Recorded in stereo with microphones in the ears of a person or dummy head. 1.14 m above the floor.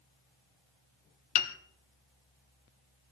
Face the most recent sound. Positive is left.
turn(degrees=45)  # may be behind; listen again after turning